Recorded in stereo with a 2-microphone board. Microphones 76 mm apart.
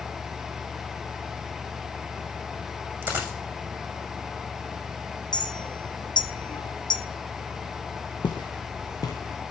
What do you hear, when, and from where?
3.0 s a dropped coin: 20° right (ahead or behind), 8.5 m
5.3 s a clink: 75° left (ahead or behind), 2.5 m
8.2 s footsteps: 75° left (ahead or behind), 2.5 m; by 9.4 s 45° left (ahead or behind), 2.5 m